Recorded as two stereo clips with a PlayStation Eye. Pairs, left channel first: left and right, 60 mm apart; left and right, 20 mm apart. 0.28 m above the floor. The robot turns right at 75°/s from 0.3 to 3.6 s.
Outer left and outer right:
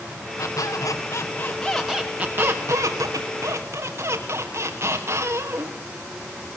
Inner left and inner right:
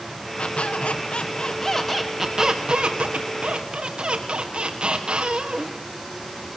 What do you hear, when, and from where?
0.4 s a squeak: 70° left, 3 m; by 5.8 s 50° right, 3 m